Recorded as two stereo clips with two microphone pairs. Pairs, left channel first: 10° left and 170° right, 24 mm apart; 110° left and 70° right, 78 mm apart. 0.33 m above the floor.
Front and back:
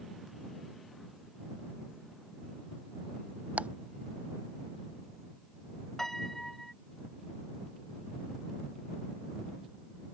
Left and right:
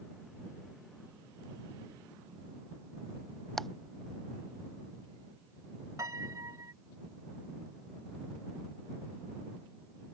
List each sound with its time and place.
3.6 s ticking: 165° right
6.0 s a piano: 50° right